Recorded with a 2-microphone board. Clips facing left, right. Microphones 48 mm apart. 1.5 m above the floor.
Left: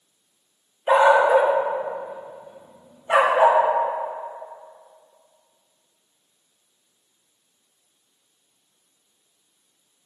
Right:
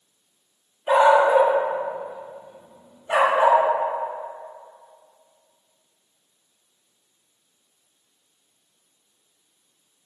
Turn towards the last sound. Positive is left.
turn(degrees=15)  # may be behind; listen again after turning